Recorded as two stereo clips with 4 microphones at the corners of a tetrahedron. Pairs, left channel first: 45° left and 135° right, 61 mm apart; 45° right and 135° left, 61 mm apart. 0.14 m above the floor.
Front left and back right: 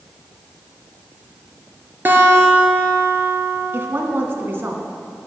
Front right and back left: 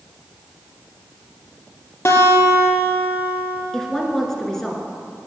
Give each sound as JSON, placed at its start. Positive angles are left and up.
{"t": 2.0, "sound": "a guitar", "azimuth_deg": -80, "distance_m": 3.0}
{"t": 3.7, "sound": "a woman speaking", "azimuth_deg": -120, "distance_m": 1.9}